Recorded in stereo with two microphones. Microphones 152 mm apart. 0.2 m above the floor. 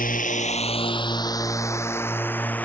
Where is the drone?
75° left (ahead or behind); by 2.7 s 10° left (ahead or behind).